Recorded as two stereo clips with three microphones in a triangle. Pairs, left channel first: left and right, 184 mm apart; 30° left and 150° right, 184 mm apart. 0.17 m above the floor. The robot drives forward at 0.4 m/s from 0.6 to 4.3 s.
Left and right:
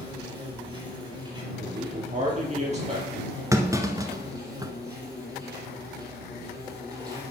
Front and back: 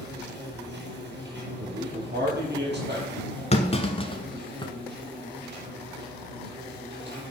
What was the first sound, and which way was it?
An insect, 150° right.